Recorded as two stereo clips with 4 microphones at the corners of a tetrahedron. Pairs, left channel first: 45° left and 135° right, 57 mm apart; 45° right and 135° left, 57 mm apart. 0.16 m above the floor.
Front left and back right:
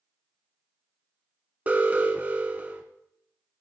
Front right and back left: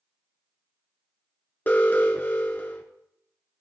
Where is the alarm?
85° right, 1.7 m.